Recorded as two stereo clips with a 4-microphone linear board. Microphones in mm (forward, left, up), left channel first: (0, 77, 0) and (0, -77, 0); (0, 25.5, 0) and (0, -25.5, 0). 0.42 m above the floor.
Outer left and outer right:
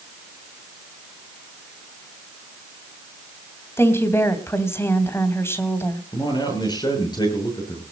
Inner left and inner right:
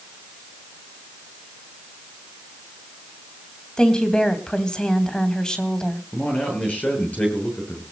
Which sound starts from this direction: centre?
A woman speaking, at 3.8 s.